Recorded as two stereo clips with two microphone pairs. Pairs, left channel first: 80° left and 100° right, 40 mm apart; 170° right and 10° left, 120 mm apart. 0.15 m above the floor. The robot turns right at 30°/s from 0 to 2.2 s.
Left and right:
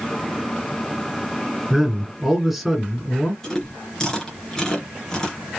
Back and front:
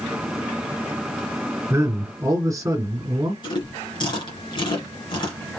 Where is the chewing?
150° left, 2.5 m.